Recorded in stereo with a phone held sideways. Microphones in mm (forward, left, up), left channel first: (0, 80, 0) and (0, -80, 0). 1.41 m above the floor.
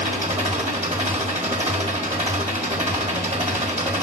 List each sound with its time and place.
0.0 s an engine running: 45° right (ahead or behind), 1.7 m